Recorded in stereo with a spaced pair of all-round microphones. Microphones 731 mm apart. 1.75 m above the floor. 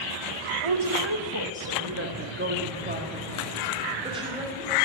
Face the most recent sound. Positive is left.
turn(degrees=-5)  # may be behind; listen again after turning